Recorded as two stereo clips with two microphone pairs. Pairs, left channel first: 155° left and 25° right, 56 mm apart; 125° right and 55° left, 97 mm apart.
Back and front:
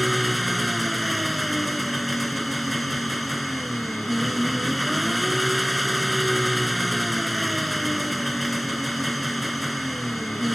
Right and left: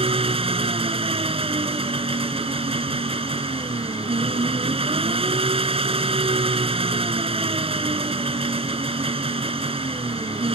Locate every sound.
0.0 s an engine running: 65° left